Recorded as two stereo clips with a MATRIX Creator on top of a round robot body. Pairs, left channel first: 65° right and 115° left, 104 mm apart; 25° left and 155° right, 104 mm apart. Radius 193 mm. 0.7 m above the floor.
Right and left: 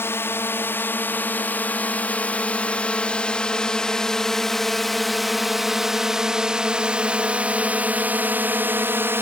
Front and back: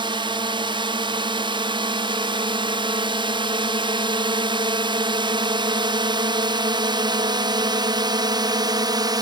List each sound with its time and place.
0.0 s a drone: 130° right; by 9.2 s 175° left